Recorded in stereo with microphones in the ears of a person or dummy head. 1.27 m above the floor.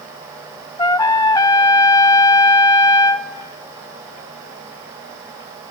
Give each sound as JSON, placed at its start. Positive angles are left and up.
{"t": 0.8, "sound": "a trumpet", "side_deg": 20, "distance_m": 0.6}